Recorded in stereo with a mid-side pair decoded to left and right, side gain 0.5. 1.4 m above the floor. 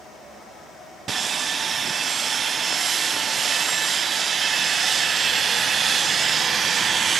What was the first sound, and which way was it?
Sawing, 45° right.